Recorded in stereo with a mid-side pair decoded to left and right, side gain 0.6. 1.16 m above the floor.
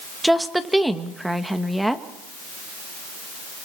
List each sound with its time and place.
0.2 s a woman speaking: 5° right, 1.5 m